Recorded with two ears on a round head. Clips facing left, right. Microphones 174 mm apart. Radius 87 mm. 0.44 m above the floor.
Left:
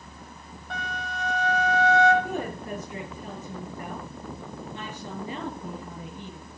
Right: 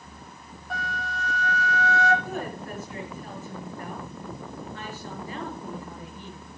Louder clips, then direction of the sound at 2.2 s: Left 2 dB; 15° left (ahead or behind).